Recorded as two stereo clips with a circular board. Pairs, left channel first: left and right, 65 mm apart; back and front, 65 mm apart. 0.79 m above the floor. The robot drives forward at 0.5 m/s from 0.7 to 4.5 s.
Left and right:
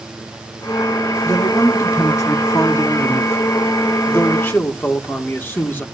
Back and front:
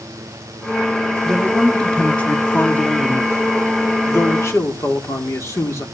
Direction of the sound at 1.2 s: 100° left.